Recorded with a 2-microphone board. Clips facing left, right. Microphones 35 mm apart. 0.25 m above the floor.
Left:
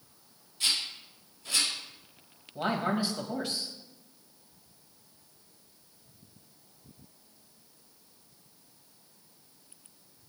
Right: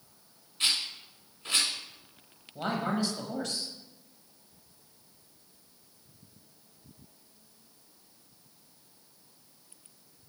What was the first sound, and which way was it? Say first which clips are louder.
A rattle: right 1 dB; 50° right (ahead or behind).